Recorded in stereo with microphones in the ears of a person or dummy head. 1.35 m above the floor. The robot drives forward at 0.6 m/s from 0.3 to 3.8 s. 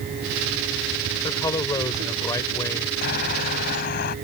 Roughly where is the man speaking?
Centre.